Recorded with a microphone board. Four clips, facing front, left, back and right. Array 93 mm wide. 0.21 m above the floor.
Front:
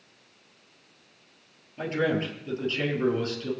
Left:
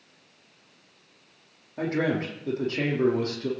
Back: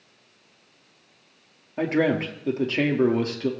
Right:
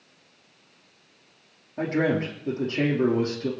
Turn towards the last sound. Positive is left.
turn(degrees=-175)